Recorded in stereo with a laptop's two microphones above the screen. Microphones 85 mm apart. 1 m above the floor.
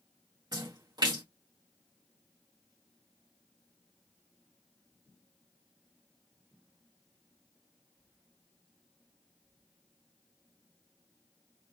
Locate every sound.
0.5 s a splash: 55° right (ahead or behind), 1.7 m